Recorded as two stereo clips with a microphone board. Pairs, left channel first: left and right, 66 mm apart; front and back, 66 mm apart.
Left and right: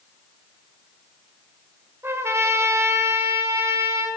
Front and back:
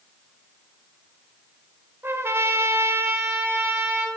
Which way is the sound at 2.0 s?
135° right.